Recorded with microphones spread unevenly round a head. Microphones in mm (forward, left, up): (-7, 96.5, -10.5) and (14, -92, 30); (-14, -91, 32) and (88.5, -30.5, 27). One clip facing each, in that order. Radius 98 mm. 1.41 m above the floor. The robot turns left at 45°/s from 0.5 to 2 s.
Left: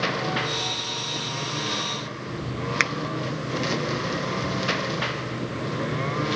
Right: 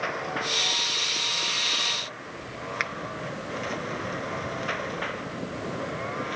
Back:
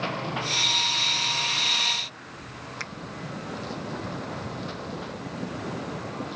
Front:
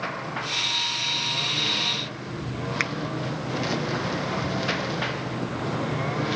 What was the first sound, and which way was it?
A lawn mower, 135° left.